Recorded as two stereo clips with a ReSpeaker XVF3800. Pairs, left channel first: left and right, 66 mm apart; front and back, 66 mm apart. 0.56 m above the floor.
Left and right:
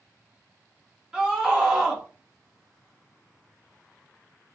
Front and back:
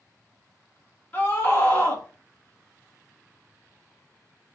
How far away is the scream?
About 1.3 m.